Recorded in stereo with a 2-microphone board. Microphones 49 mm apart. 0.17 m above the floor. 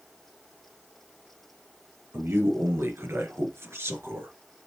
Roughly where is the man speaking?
Right.